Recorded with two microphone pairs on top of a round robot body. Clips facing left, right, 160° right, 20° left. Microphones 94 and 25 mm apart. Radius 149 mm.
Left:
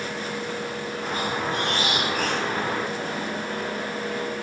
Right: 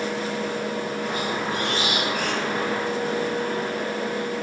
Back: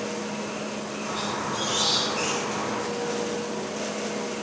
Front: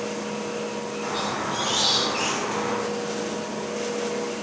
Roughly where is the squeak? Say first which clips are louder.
Right 1 dB, front 2 dB; ahead left.